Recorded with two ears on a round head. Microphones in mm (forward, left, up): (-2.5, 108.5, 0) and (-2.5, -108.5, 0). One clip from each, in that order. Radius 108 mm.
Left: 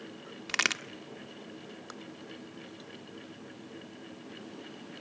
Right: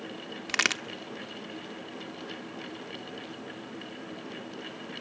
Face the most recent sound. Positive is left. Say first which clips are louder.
# right 2 dB
turn(degrees=0)  # may be behind; listen again after turning